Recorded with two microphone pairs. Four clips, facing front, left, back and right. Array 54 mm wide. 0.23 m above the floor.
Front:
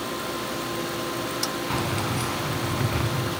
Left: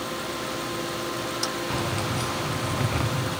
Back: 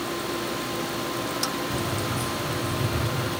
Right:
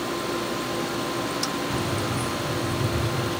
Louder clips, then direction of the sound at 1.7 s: Right 1 dB, front 1 dB; 10° left.